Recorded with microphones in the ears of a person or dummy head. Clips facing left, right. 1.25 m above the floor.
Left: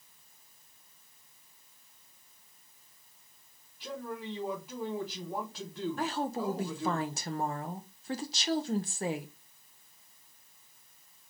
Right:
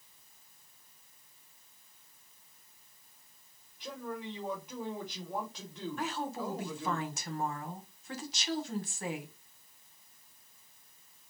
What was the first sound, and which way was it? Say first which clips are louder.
A man speaking: left 1 dB; 10° left (ahead or behind).